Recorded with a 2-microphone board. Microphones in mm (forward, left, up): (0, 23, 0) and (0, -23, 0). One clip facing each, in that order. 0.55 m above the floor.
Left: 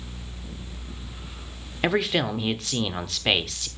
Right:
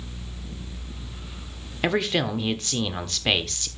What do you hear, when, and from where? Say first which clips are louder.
1.8 s a man speaking: even; 5° left (ahead or behind), 1.1 m